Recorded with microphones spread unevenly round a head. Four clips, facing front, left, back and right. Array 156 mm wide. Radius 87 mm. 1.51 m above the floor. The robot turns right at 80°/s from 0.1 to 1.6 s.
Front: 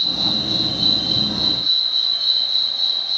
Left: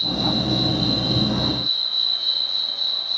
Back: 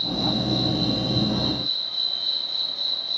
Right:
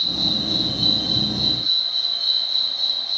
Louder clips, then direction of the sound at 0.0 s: Left 6 dB, back 3 dB; 75° right.